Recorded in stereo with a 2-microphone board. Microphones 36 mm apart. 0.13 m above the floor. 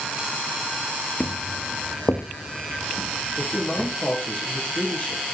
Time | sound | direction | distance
1.2 | footsteps | 75° left (ahead or behind) | 1.4 m
3.4 | a man speaking | 35° left (ahead or behind) | 4.5 m